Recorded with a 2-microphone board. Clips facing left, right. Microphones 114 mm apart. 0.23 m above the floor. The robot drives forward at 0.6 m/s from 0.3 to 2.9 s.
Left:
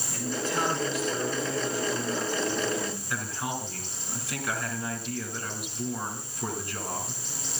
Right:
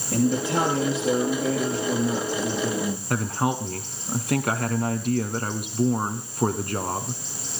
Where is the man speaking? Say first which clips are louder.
Right 9 dB; 75° right (ahead or behind), 6.5 m; by 3.0 s 65° right (ahead or behind), 7 m.